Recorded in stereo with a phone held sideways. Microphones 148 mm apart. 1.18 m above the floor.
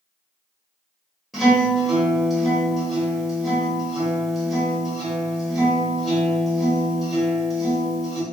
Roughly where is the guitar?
Centre.